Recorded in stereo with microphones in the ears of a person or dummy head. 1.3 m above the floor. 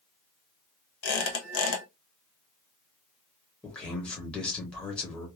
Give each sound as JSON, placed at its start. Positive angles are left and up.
{"t": 1.0, "sound": "a squeak", "side_deg": 80, "distance_m": 1.2}
{"t": 3.6, "sound": "a man speaking", "side_deg": 10, "distance_m": 1.1}